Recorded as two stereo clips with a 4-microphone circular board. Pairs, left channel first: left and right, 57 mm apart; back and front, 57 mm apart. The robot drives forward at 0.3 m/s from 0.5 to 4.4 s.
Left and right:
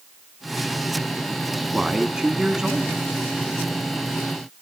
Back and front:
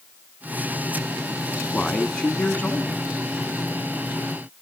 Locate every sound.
1.7 s a man speaking: 140° right, 1.2 m; by 3.0 s 160° right, 1.3 m